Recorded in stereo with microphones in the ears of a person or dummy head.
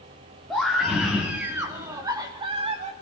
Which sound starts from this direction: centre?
A scream, at 0.5 s.